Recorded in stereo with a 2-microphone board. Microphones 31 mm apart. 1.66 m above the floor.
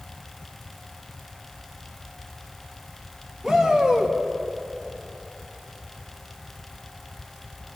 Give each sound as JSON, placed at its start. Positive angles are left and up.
{"t": 3.4, "sound": "a shout", "side_deg": -20, "distance_m": 2.5}